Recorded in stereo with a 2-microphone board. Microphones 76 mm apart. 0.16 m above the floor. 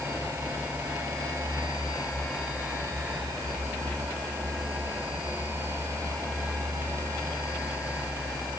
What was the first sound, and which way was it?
Only background noise.